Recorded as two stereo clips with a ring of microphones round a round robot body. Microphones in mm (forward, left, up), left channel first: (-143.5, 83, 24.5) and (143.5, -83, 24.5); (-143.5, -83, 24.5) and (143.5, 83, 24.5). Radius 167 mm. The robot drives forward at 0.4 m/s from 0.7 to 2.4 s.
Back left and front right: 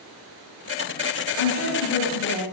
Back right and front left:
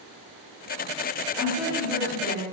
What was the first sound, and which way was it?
A woman speaking, 115° left.